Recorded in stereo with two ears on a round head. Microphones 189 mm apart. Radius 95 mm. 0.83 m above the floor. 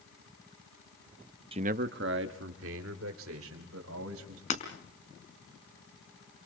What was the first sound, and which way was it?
A man speaking, 25° right (ahead or behind).